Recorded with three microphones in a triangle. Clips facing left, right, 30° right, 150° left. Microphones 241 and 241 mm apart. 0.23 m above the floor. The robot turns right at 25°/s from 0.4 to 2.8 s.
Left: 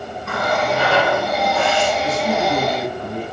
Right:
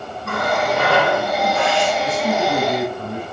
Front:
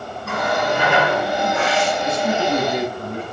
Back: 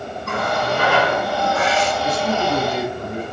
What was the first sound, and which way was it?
A running tap, 115° right.